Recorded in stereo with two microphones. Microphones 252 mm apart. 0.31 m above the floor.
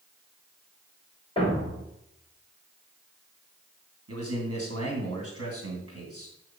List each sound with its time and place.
1.4 s a thud: 20° left (ahead or behind), 3.5 m
4.1 s a man speaking: 70° right (ahead or behind), 2.5 m